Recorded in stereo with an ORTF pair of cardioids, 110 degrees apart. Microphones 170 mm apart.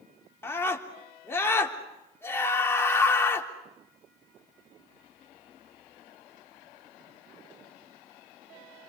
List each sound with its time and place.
0.4 s a scream: 15° left, 3.5 m